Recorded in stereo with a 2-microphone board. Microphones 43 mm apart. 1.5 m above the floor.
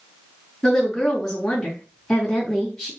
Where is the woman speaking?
15° left (ahead or behind), 3.5 m.